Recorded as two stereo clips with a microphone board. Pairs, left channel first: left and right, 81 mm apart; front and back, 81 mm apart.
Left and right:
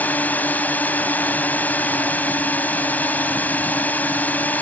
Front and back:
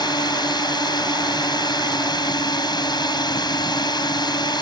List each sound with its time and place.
0.0 s a drone: 20° left